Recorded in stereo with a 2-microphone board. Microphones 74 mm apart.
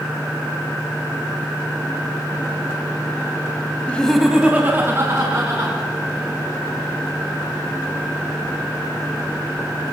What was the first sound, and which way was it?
Laughter, 20° left (ahead or behind).